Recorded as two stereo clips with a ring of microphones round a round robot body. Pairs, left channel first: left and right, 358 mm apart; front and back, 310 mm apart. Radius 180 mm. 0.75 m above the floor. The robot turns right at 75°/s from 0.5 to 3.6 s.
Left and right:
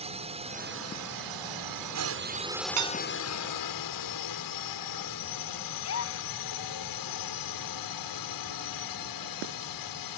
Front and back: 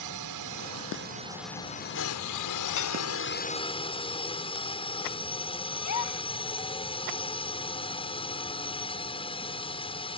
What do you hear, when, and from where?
0.0 s a drone: 160° right; by 10.2 s 70° left
2.8 s dishes clattering: 50° right; by 3.0 s 35° right
5.8 s a gasp: 35° left